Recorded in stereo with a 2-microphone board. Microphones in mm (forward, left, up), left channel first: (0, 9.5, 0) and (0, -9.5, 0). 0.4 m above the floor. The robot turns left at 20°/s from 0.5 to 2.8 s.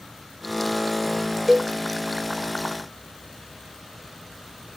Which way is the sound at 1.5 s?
20° right (ahead or behind).